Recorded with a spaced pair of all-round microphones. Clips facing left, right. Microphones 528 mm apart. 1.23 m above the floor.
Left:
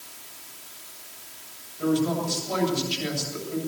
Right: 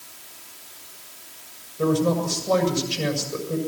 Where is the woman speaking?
80° right, 7 m.